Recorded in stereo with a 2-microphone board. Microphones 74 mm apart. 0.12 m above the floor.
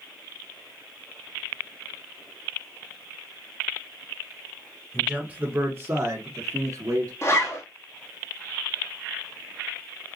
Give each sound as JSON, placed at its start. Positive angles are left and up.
{"t": 4.9, "sound": "a man speaking", "side_deg": -15, "distance_m": 1.6}
{"t": 7.2, "sound": "a zipper", "side_deg": 40, "distance_m": 2.0}